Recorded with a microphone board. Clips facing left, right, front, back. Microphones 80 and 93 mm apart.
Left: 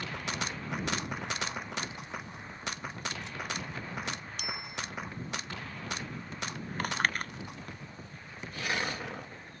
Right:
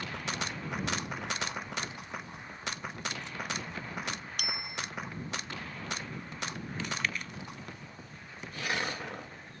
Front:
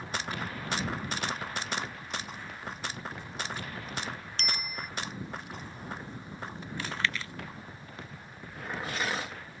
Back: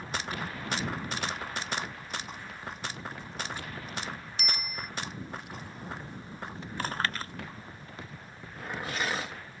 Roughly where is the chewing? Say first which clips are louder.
Left 5 dB, back 2 dB; behind left.